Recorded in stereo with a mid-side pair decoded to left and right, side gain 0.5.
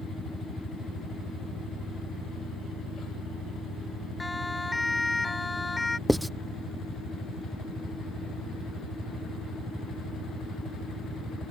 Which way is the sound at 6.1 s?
5° right.